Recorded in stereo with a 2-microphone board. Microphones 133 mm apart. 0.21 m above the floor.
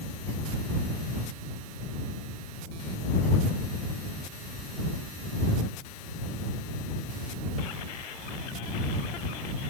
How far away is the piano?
No piano in this recording.